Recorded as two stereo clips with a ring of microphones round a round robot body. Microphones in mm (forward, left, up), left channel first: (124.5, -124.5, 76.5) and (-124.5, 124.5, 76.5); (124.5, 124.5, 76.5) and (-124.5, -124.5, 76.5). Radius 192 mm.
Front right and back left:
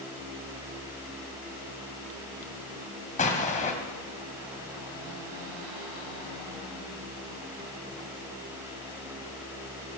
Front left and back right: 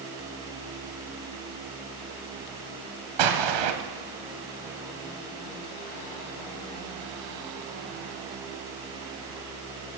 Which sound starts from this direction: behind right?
An explosion, at 3.2 s.